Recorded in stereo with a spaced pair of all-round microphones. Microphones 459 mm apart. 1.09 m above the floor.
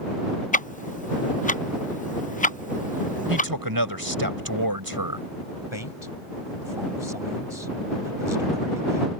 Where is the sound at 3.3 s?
45° right (ahead or behind).